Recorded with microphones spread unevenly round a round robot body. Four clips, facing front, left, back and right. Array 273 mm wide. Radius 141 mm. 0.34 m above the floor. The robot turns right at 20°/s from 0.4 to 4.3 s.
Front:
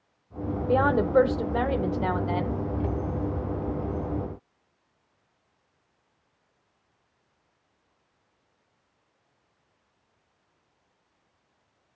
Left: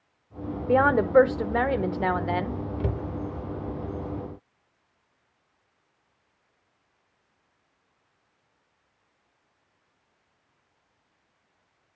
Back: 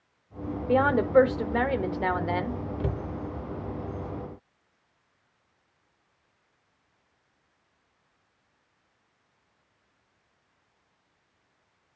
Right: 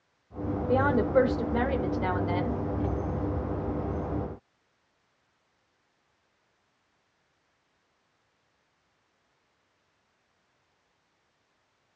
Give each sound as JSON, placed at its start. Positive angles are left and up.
{"t": 0.7, "sound": "a woman speaking", "azimuth_deg": 85, "distance_m": 0.9}
{"t": 2.8, "sound": "a cupboard door", "azimuth_deg": 125, "distance_m": 1.2}